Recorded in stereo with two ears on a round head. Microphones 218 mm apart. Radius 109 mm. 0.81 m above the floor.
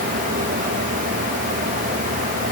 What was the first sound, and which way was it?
Only background noise.